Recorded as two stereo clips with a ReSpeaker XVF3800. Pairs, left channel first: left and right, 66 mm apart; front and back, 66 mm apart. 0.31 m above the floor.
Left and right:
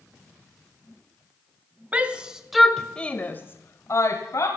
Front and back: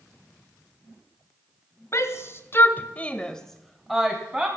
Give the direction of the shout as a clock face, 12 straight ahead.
1 o'clock.